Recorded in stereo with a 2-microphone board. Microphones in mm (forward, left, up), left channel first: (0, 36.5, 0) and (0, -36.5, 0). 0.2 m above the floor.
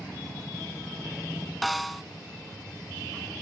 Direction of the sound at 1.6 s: Centre (ahead or behind).